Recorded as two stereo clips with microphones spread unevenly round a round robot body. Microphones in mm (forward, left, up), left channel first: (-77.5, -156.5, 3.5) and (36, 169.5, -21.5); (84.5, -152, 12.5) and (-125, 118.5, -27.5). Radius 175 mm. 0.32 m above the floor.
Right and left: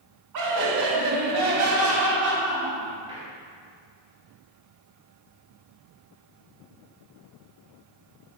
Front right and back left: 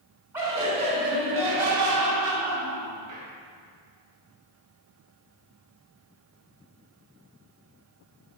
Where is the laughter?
45° left, 2.5 m; by 3.3 s 145° left, 3.5 m.